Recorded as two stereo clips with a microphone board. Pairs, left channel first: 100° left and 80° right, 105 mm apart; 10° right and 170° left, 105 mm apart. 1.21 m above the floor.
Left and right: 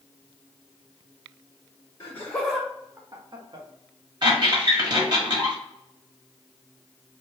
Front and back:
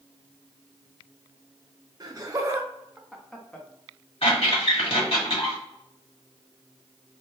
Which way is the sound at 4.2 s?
30° right.